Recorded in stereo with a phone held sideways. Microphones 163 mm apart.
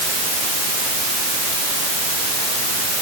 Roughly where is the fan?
No fan in this recording.